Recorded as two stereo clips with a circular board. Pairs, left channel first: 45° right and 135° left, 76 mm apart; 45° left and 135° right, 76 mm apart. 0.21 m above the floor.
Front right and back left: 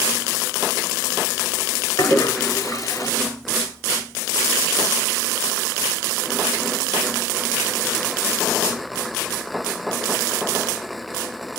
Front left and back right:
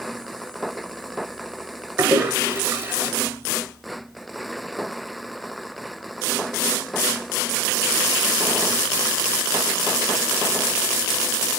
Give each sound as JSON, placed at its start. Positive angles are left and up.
{"t": 2.0, "sound": "a toilet flushing", "azimuth_deg": -80, "distance_m": 0.8}